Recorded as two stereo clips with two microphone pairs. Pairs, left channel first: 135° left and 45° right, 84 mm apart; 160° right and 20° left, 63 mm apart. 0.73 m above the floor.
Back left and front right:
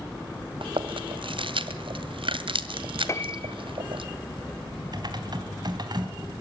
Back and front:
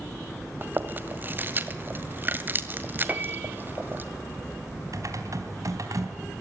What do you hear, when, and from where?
0.6 s chewing: 40° right, 1.7 m
3.1 s a piano: 80° left, 1.3 m
4.9 s typing on a keyboard: 10° right, 3.5 m